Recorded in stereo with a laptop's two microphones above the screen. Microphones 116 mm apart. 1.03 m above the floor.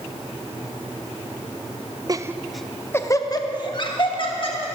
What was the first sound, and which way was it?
Laughter, 35° right (ahead or behind).